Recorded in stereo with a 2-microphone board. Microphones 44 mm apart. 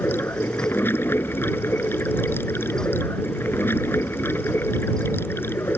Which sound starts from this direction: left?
Running water, at 0.0 s.